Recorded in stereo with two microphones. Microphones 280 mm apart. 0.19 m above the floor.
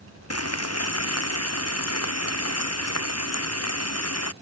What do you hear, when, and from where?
0.3 s frying: 60° left (ahead or behind)